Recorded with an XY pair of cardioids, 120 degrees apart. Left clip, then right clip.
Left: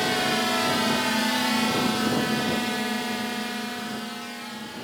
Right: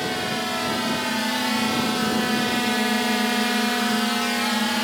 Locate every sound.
0.0 s a drone: 15° left; by 4.8 s 80° right